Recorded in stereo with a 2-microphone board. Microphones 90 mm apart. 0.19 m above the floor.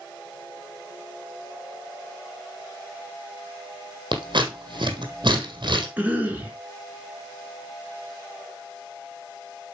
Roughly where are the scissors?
Right.